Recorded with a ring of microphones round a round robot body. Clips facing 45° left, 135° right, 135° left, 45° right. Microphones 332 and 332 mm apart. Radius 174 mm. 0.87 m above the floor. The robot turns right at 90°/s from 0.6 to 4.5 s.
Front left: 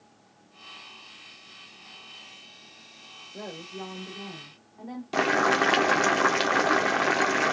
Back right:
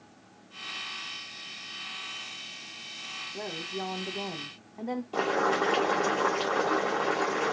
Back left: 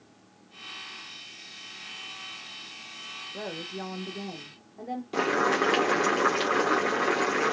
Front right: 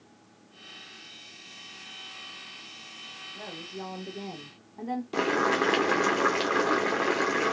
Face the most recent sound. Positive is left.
turn(degrees=40)